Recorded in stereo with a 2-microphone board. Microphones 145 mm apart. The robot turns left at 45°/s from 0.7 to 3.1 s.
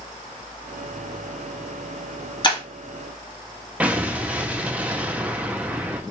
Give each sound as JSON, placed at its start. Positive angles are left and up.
{"t": 2.4, "sound": "breaking glass", "side_deg": 35, "distance_m": 1.0}
{"t": 3.8, "sound": "an explosion", "side_deg": -10, "distance_m": 0.5}